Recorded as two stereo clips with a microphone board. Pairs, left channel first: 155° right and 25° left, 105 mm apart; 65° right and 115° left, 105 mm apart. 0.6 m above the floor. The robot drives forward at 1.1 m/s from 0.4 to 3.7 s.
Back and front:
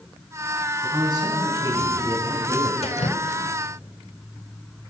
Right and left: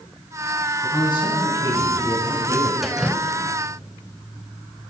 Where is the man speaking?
25° right, 5 m; by 2.7 s 40° right, 3.5 m.